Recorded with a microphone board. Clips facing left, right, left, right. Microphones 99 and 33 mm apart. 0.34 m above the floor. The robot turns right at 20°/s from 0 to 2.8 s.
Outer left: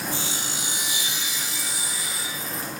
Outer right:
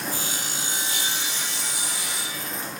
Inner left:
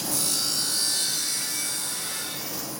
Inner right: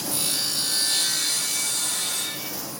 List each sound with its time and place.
0.1 s sawing: 135° right, 5.5 m; by 2.5 s 90° right, 5.5 m